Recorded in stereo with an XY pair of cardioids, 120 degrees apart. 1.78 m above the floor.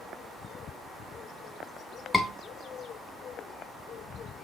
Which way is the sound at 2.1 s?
10° left.